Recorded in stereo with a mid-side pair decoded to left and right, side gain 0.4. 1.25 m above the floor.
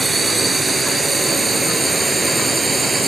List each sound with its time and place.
0.0 s a drone: 25° right